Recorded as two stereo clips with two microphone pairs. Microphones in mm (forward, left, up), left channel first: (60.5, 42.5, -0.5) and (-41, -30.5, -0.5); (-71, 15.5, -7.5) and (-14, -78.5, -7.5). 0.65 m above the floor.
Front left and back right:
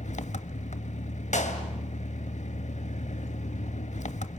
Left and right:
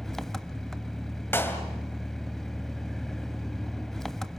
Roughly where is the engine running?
Ahead left.